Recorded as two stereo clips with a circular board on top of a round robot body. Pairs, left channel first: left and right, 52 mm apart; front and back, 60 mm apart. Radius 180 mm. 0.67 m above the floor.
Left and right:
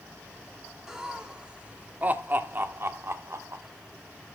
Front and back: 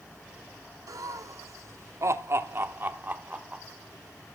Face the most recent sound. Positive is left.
turn(degrees=-110)